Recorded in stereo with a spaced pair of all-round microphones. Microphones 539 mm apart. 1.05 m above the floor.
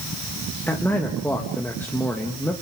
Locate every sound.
0.7 s a man speaking: 5° left (ahead or behind), 1.4 m